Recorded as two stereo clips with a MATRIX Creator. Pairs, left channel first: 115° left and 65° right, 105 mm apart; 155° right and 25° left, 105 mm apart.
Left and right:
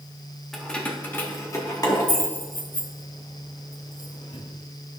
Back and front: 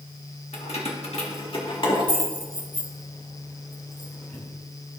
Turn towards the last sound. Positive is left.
turn(degrees=135)